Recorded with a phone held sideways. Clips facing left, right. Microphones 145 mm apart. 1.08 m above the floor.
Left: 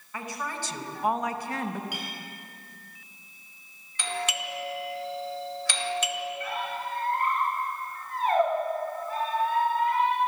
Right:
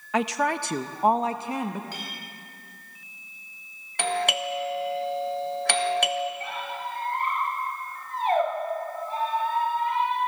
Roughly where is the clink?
Centre.